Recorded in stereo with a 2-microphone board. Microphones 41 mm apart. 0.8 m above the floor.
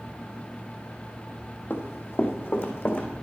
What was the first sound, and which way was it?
Running footsteps, 65° left (ahead or behind).